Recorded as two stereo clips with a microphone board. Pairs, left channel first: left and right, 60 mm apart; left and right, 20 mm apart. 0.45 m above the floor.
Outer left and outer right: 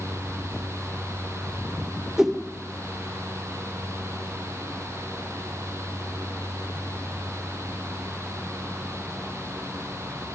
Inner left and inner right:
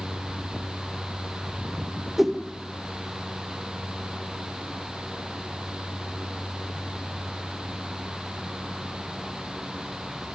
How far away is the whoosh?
About 1.7 m.